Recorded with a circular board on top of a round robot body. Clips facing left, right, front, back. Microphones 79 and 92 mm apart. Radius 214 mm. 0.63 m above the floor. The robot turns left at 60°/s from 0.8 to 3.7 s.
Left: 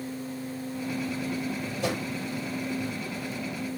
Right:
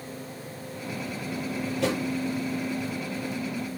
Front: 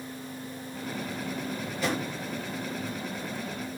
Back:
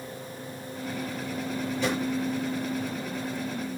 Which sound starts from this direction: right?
A drawer, at 1.6 s.